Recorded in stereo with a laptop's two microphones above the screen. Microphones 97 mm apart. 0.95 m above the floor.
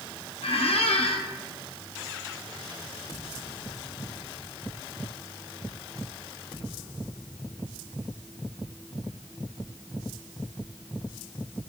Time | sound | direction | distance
0.4 | a squeak | 75° left (ahead or behind) | 0.7 m